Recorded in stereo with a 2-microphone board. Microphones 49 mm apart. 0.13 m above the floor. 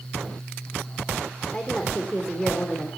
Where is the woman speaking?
30° left (ahead or behind), 6.5 m.